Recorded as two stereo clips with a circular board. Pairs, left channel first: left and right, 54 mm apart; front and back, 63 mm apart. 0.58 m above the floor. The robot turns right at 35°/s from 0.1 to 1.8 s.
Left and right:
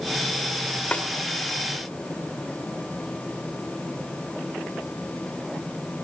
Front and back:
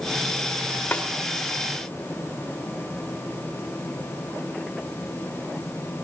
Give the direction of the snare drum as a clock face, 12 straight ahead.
10 o'clock.